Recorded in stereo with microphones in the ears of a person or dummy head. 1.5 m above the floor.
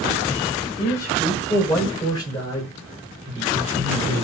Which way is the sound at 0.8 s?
10° left (ahead or behind).